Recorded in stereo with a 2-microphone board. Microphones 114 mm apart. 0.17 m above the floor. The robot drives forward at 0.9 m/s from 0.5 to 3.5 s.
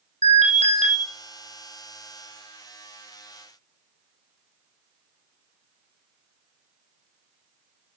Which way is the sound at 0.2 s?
80° right.